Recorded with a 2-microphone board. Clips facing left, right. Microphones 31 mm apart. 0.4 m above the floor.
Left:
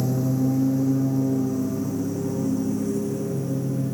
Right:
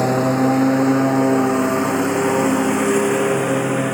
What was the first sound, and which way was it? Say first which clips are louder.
A lawn mower: right 7 dB; 70° right (ahead or behind).